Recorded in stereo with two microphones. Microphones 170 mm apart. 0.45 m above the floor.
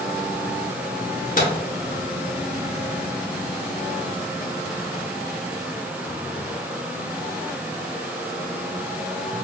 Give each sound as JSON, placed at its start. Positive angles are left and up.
{"t": 1.4, "sound": "a microwave", "side_deg": 55, "distance_m": 0.9}